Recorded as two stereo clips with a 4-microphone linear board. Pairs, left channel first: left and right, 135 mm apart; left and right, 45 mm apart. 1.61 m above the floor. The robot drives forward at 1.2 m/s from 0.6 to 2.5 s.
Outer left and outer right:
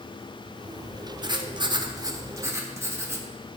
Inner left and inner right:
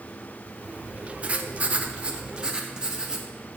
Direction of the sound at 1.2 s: 30° right (ahead or behind).